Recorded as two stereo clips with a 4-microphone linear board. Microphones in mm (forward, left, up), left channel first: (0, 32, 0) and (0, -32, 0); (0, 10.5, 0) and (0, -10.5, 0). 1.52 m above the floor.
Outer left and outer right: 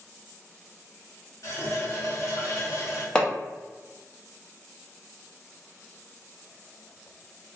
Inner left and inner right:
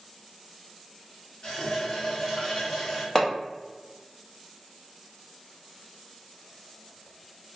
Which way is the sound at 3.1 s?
15° left (ahead or behind).